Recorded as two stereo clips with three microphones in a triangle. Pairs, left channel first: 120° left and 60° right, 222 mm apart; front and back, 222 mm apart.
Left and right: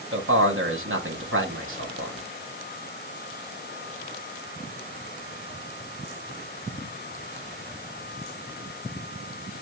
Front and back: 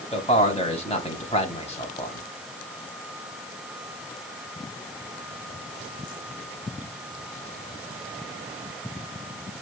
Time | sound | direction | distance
0.1 | a man speaking | 60° right | 2.5 m